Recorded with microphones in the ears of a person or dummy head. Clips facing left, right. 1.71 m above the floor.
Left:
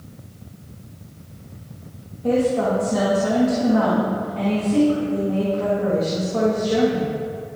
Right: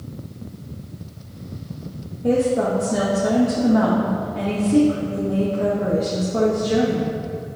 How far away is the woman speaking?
About 1.3 m.